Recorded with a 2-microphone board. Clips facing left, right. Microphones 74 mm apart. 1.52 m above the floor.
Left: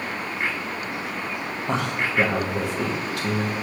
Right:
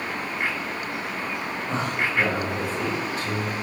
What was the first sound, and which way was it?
A man speaking, 85° left.